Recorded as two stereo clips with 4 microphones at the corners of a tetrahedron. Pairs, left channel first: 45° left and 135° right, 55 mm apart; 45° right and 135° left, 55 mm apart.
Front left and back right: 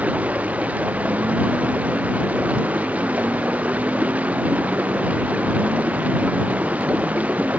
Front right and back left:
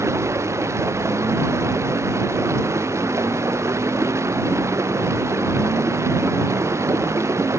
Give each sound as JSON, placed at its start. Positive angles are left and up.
{"t": 0.0, "sound": "running water", "azimuth_deg": 165}